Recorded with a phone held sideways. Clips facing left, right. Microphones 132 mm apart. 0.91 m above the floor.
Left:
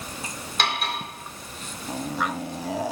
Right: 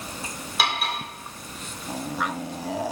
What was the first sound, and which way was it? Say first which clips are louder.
Cutlery clinking: even; 5° right (ahead or behind).